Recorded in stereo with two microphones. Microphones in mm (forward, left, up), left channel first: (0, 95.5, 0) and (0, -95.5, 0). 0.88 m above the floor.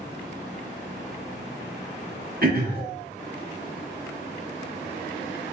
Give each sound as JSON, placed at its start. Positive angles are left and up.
{"t": 2.4, "sound": "throat clearing", "side_deg": -50, "distance_m": 1.1}